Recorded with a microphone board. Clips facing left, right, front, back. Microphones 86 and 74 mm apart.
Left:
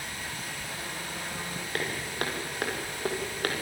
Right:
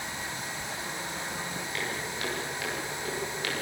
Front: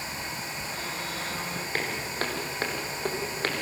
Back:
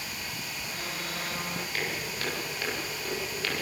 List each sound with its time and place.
1.7 s footsteps: 50° left, 6.5 m